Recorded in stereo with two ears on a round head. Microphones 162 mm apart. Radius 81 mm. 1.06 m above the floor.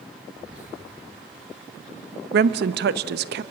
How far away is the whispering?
About 9.5 m.